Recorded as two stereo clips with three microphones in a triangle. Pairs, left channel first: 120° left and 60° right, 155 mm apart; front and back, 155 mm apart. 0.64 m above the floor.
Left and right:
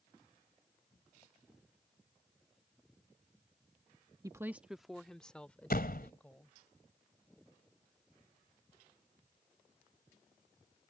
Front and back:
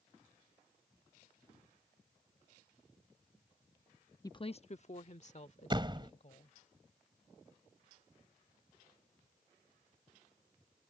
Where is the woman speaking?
30° right; by 6.5 s 40° left.